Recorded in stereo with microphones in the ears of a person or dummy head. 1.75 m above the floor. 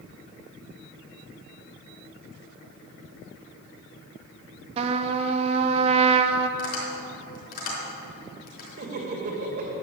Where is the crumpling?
No crumpling in this recording.